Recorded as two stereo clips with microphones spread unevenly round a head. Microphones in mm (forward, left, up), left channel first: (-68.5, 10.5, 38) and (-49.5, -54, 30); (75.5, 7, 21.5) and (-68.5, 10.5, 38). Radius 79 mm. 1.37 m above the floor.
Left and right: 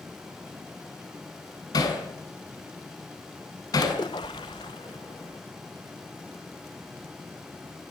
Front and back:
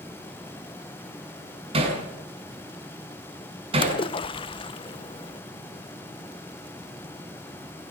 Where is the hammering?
125° left, 7 m.